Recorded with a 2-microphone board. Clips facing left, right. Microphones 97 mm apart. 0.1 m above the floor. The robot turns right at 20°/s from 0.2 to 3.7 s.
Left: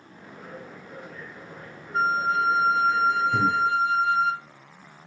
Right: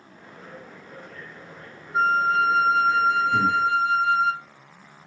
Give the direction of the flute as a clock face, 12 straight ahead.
12 o'clock.